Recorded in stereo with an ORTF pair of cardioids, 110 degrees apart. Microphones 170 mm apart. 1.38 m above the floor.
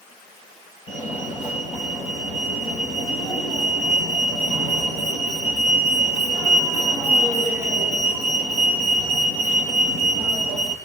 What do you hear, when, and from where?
0.9 s a fire alarm: 45° left, 3 m